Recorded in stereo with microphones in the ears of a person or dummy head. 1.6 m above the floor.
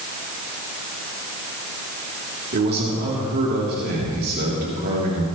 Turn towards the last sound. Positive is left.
turn(degrees=-50)  # may be behind; listen again after turning